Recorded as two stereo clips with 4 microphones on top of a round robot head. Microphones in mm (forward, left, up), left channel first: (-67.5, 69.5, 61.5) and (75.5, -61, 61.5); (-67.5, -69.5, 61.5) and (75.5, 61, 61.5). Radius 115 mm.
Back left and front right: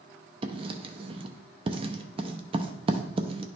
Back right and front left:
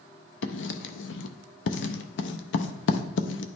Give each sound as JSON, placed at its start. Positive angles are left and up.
{"t": 0.4, "sound": "writing", "azimuth_deg": -105, "distance_m": 0.5}